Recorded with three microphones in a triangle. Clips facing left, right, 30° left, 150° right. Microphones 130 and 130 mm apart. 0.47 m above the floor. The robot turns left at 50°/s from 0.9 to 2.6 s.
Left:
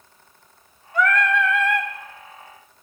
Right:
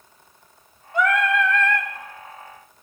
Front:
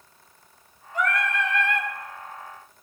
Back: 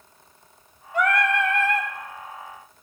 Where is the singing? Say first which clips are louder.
Even, back 4 dB; 155° right, 0.6 m; by 1.9 s 155° left, 0.6 m.